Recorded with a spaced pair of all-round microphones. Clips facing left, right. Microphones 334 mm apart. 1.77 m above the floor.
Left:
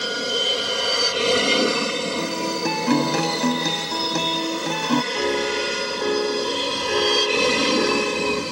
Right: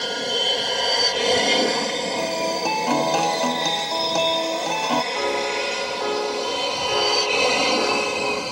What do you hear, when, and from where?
0.0 s an aircraft: 10° left (ahead or behind); by 8.5 s 25° left (ahead or behind)
2.2 s a guitar: 30° left (ahead or behind)
5.1 s a piano: 30° left (ahead or behind)